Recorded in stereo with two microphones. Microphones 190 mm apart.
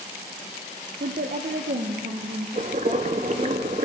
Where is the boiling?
40° right (ahead or behind), 0.6 m.